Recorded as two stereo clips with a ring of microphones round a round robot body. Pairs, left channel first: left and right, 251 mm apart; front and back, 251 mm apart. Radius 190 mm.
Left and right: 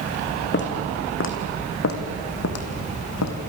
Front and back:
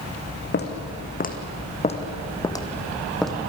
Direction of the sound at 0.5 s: 50° left.